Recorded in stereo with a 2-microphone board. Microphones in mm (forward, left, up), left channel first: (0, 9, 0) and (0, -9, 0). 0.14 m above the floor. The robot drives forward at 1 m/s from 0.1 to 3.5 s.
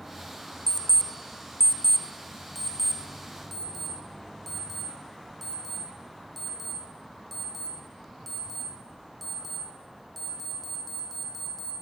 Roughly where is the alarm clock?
Left.